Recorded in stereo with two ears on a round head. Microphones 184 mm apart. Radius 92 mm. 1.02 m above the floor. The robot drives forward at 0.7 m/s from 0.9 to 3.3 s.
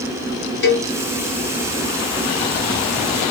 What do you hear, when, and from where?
0.6 s a cowbell: 60° left (ahead or behind), 1.8 m